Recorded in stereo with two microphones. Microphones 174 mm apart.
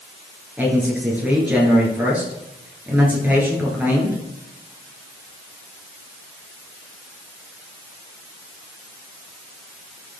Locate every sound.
0.6 s a man speaking: 10° right (ahead or behind), 3 m